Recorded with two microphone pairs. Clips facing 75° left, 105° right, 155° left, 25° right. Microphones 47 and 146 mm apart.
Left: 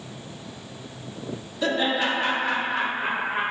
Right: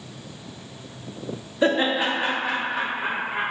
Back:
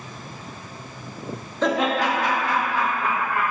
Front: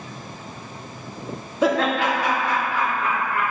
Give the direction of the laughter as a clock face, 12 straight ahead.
3 o'clock.